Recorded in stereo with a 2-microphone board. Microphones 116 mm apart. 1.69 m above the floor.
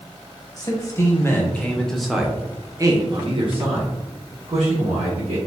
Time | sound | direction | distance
0.6 | a man speaking | 30° left (ahead or behind) | 1.3 m